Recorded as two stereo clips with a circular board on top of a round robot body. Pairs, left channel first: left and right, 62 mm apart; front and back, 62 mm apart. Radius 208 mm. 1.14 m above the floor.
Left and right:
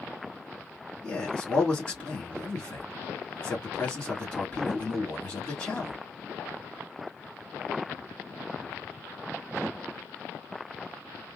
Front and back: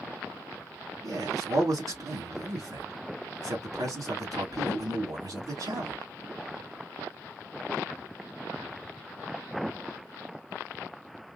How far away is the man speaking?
About 2 m.